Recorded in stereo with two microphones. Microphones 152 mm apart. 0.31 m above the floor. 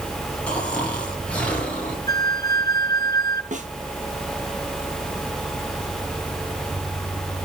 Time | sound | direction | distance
0.5 | snoring | 10° left (ahead or behind) | 4 m
2.1 | a flute | 25° left (ahead or behind) | 1.4 m
3.5 | a snare drum | 60° right (ahead or behind) | 2 m